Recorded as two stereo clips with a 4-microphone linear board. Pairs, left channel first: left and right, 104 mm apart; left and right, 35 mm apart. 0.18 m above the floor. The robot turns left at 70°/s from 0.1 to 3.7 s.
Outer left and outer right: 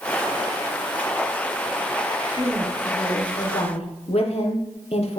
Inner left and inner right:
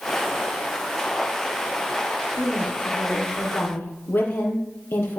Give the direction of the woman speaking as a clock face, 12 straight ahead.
5 o'clock.